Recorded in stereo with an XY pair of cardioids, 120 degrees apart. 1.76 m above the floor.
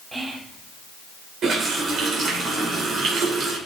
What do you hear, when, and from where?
0.1 s whispering: 15° right, 3 m
1.4 s a running tap: 55° right, 4.5 m